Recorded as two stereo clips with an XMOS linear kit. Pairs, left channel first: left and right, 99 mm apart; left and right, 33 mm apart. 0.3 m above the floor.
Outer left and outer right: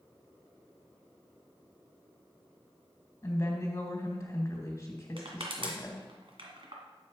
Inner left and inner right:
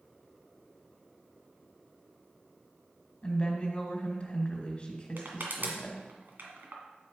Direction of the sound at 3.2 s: 30° left (ahead or behind).